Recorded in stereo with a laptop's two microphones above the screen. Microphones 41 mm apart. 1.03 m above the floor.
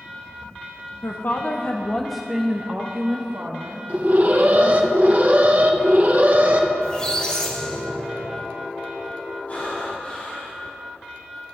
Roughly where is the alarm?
Right.